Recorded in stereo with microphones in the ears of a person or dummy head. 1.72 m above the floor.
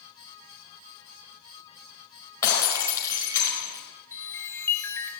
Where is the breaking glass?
20° left (ahead or behind), 5 m.